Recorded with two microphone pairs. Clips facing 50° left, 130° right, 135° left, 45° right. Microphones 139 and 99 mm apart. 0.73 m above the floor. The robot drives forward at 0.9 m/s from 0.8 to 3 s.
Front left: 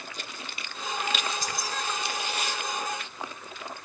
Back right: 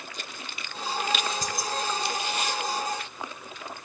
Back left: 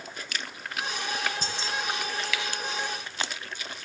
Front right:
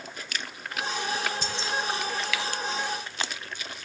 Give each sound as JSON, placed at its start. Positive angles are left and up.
{"t": 1.4, "sound": "keys jangling", "azimuth_deg": 180, "distance_m": 4.0}